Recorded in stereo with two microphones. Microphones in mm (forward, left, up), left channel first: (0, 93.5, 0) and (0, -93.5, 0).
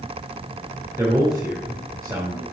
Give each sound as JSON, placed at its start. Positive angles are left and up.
{"t": 1.0, "sound": "a man speaking", "side_deg": -15, "distance_m": 1.9}